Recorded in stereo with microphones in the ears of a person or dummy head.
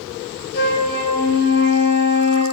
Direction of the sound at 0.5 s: 30° left (ahead or behind).